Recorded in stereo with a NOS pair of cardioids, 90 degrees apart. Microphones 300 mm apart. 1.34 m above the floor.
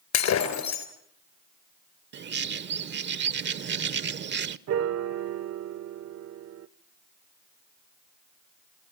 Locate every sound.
0.1 s breaking glass: 70° left, 3.5 m
2.1 s a bird: 35° right, 0.7 m
4.7 s a piano: 55° right, 0.8 m